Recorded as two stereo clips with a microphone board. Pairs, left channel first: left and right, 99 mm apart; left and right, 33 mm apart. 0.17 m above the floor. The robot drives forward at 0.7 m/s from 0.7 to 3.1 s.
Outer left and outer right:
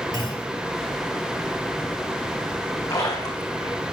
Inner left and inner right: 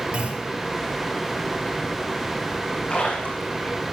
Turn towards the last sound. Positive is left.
turn(degrees=40)  # may be behind; listen again after turning